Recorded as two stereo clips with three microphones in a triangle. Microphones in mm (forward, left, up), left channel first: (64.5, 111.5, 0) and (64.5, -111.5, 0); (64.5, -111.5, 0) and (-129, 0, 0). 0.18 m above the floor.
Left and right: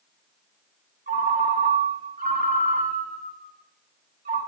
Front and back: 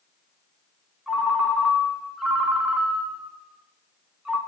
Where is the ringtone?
125° right, 1.3 m.